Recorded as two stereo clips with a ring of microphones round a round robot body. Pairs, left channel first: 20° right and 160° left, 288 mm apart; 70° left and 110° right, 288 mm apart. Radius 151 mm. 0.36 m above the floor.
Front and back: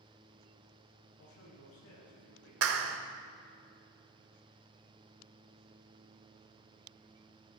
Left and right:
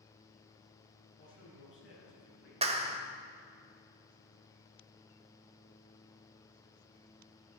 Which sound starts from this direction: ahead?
A man speaking, at 1.2 s.